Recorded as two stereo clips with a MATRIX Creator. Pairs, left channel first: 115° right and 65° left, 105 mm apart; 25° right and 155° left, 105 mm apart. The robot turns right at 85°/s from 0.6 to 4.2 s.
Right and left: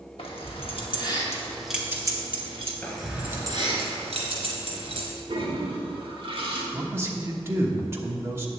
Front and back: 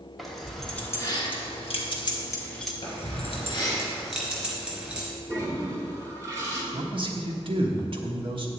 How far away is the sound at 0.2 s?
About 1.1 m.